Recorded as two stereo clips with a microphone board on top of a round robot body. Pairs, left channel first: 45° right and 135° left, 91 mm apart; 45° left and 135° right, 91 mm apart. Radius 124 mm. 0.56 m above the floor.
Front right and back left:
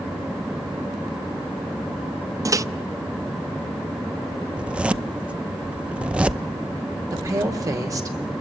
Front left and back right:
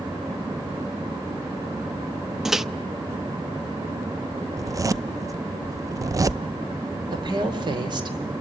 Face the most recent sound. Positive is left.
turn(degrees=-170)